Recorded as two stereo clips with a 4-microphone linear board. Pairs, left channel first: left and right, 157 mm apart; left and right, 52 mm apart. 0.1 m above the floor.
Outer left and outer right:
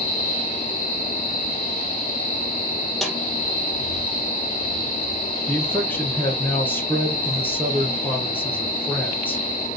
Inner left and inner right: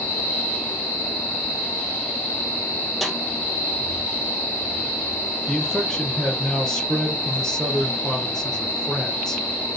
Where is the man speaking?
10° left (ahead or behind), 2.5 m.